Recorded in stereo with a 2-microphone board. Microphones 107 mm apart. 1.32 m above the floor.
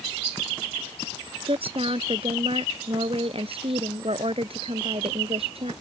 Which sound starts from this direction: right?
A woman speaking, at 1.4 s.